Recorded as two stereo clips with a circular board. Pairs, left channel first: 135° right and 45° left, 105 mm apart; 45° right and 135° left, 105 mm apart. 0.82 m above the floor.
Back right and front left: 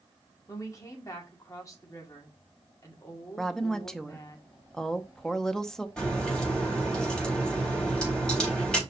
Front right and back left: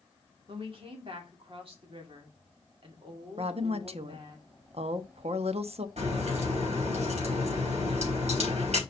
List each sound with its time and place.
0.5 s a woman speaking: 165° left, 1.9 m
3.4 s a woman speaking: 140° left, 0.7 m
6.0 s a crack: 140° left, 4 m